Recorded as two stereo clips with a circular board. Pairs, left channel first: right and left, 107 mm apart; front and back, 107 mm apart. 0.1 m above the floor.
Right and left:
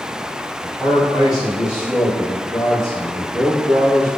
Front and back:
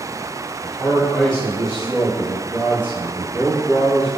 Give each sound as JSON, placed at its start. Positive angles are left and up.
{"t": 0.6, "sound": "a man speaking", "azimuth_deg": -25, "distance_m": 1.7}